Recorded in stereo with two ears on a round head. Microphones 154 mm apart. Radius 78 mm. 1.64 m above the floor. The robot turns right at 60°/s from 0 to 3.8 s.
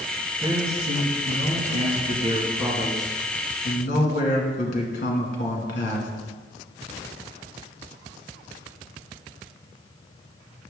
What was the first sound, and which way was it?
A man speaking, 155° right.